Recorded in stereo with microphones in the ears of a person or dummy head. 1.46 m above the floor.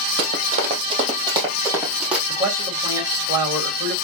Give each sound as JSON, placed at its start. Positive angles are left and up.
{"t": 0.2, "sound": "running footsteps", "side_deg": -50, "distance_m": 3.0}
{"t": 2.3, "sound": "a man speaking", "side_deg": -15, "distance_m": 3.0}